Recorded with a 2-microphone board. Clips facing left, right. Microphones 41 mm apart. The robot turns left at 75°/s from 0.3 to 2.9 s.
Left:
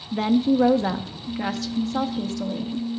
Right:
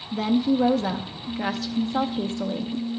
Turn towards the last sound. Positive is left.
turn(degrees=-110)